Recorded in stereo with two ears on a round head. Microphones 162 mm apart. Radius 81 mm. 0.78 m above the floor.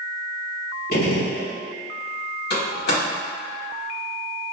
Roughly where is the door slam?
Left.